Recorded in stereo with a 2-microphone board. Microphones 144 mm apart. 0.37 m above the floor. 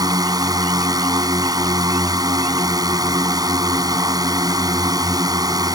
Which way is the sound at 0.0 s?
25° right (ahead or behind).